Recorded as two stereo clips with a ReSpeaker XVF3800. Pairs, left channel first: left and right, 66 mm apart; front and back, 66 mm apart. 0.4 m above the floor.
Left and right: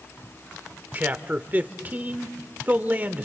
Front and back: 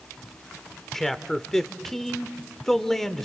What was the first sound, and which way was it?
A man speaking, 80° right.